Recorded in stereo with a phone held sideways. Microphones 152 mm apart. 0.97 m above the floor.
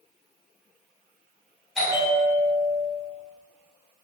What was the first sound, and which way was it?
A bell, centre (ahead or behind).